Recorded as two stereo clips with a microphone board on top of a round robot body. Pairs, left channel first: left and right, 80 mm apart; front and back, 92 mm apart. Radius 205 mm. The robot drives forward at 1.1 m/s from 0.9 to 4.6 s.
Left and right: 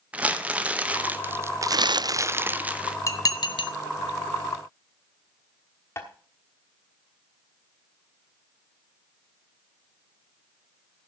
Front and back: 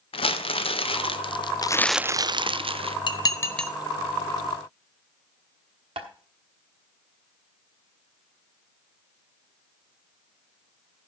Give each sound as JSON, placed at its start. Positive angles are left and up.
{"t": 0.1, "sound": "crumpling", "azimuth_deg": -15, "distance_m": 1.2}
{"t": 3.1, "sound": "dishes clattering", "azimuth_deg": 40, "distance_m": 0.9}
{"t": 6.0, "sound": "tapping", "azimuth_deg": 155, "distance_m": 1.1}